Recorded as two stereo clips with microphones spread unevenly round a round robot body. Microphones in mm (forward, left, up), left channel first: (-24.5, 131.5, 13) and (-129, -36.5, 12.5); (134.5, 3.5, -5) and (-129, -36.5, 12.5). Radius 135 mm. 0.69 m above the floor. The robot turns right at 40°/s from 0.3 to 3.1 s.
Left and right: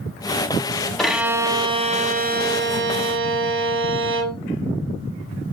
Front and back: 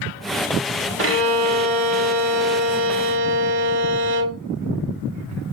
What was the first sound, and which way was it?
A violin, 145° left.